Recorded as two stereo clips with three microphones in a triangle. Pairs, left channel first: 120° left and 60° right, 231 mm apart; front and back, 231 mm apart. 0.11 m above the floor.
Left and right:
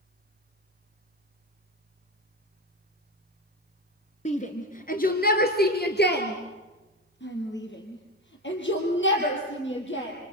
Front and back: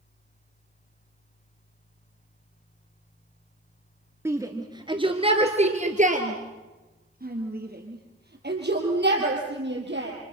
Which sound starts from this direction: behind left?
A shout, at 4.2 s.